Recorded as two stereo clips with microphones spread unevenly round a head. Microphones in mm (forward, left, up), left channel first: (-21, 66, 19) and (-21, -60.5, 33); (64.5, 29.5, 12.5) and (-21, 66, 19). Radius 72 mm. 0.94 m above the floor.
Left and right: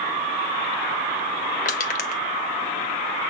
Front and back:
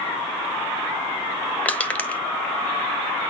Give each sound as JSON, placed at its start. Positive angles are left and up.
{"t": 1.6, "sound": "crushing", "azimuth_deg": 50, "distance_m": 1.5}